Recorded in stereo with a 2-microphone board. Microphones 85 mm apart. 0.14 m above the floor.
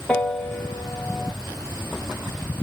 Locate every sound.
0.1 s a piano: 10° left (ahead or behind), 2.5 m